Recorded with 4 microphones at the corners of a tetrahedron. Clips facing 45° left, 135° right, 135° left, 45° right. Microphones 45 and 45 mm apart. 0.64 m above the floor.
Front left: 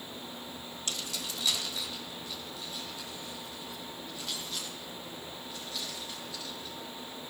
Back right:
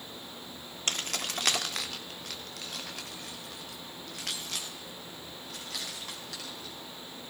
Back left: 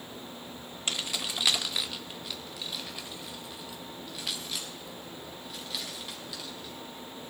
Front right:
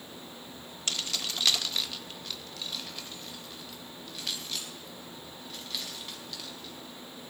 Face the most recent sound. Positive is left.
turn(degrees=-140)